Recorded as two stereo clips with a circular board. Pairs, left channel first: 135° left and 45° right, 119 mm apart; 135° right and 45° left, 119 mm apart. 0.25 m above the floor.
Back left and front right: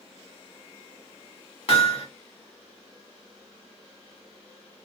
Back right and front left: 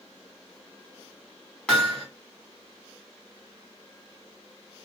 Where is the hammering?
145° left, 1.4 m.